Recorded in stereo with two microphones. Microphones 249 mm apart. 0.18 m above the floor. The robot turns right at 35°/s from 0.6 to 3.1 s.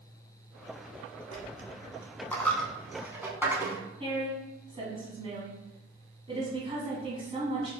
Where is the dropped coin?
30° left (ahead or behind), 0.6 m; by 3.8 s 10° right (ahead or behind), 0.6 m.